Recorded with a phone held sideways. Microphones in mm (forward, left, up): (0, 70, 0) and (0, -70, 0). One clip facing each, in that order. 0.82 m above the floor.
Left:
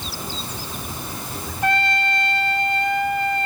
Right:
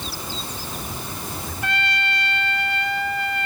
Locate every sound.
1.6 s a trumpet: 45° left (ahead or behind), 1.7 m